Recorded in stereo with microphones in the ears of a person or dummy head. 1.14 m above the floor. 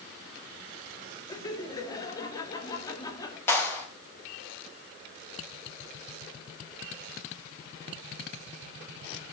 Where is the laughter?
25° left (ahead or behind), 2.0 m.